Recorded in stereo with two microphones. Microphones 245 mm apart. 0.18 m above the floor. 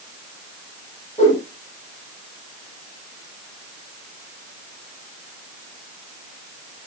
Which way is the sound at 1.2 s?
30° left (ahead or behind).